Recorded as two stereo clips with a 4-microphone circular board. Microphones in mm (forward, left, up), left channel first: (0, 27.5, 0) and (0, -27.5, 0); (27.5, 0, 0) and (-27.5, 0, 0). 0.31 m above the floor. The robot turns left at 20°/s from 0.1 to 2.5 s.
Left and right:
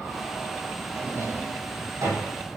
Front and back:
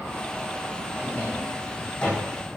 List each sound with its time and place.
0.9 s a drawer: 55° right, 8 m; by 2.3 s 85° right, 8 m